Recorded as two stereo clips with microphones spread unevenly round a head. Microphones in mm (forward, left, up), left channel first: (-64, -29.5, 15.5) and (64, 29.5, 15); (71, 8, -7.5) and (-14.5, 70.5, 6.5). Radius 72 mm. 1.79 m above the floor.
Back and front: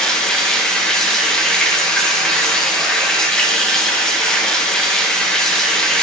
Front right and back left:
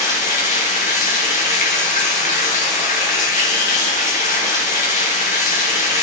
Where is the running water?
70° right, 1.8 m.